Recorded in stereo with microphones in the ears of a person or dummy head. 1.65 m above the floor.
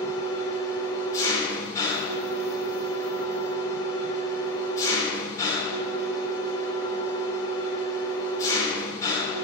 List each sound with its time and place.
0.0 s an engine running: 20° left (ahead or behind), 3.5 m